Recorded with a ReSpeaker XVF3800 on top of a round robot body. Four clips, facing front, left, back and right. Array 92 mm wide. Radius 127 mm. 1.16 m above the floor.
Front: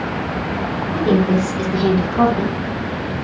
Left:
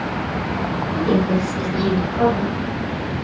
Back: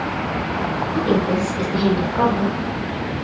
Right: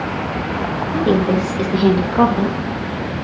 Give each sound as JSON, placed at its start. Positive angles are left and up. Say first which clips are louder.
{"t": 0.9, "sound": "a woman speaking", "louder": "right 3 dB, front 4 dB", "azimuth_deg": -70, "distance_m": 3.5}